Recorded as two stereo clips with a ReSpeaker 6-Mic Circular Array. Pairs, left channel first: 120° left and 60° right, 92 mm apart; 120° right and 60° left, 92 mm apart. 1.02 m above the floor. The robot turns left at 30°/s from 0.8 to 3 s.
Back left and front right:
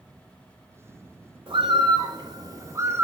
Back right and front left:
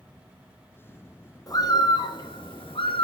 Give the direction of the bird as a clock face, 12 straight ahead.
2 o'clock.